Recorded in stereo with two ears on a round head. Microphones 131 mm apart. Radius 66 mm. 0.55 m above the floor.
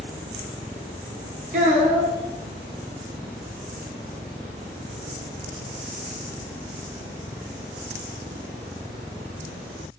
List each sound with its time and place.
1.5 s a child speaking: 55° right (ahead or behind), 0.5 m